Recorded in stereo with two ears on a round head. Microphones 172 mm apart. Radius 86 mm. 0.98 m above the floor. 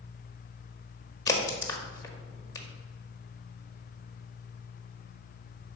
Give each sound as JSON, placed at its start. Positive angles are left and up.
{"t": 1.3, "sound": "a crack", "side_deg": 20, "distance_m": 1.4}